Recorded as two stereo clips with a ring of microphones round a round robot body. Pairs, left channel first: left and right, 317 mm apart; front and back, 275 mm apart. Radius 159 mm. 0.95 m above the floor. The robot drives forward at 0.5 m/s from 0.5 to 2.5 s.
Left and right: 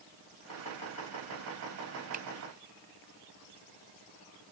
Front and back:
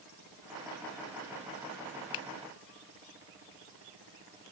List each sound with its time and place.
2.1 s a finger snap: 20° right; by 2.3 s 25° right